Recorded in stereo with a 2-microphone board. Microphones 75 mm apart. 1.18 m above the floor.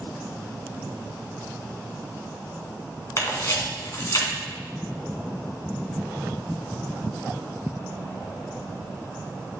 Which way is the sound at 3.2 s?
45° left (ahead or behind).